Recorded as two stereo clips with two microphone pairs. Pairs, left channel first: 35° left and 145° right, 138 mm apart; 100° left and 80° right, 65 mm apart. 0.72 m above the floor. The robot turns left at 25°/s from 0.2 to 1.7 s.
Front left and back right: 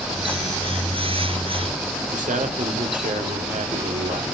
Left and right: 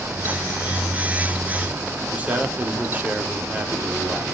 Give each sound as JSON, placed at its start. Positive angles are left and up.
{"t": 2.1, "sound": "a man speaking", "azimuth_deg": -150, "distance_m": 1.8}